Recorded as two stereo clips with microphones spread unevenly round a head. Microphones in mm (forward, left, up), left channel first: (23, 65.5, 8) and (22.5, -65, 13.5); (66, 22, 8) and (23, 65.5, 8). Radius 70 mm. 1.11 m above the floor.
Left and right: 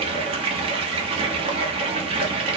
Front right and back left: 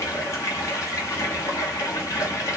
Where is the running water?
70° right, 0.7 m.